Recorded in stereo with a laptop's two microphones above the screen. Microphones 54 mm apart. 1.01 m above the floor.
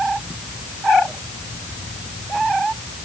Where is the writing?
No writing in this recording.